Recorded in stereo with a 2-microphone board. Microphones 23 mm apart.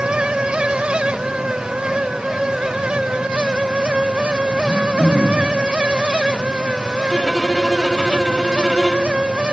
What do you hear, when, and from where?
4.6 s throat clearing: 30° right (ahead or behind), 4 m
7.1 s a violin: 5° left (ahead or behind), 2 m